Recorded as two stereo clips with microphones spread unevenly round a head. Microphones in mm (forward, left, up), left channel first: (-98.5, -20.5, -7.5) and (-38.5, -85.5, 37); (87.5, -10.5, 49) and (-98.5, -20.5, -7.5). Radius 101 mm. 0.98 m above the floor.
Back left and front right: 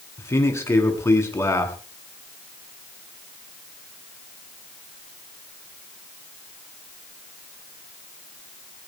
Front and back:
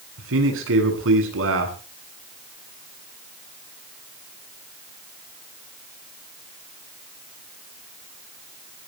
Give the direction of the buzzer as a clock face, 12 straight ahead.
No buzzer in this recording.